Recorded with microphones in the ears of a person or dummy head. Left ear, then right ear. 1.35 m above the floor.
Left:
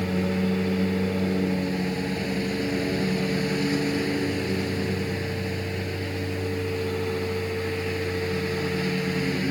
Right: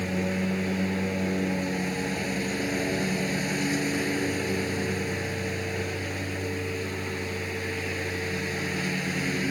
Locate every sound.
0.0 s a lawn mower: 25° right (ahead or behind)